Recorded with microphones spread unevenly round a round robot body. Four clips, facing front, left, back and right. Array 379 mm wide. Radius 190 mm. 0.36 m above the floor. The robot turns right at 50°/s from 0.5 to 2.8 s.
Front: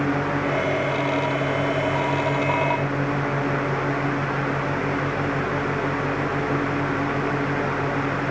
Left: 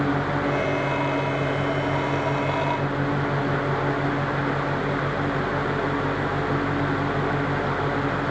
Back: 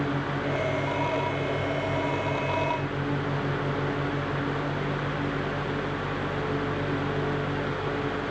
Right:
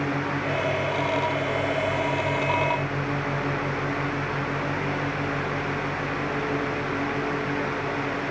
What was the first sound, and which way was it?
Only background noise.